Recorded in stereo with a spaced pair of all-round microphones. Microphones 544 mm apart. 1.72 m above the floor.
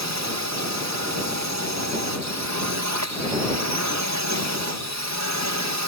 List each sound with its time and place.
0.0 s a drone: 30° right (ahead or behind)